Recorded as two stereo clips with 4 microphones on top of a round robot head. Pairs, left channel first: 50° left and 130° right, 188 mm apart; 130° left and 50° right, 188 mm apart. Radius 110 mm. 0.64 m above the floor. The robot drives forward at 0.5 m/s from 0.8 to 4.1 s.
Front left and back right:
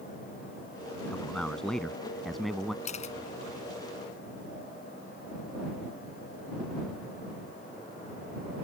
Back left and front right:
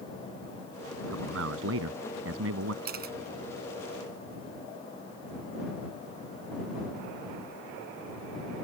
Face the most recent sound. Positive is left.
turn(degrees=-10)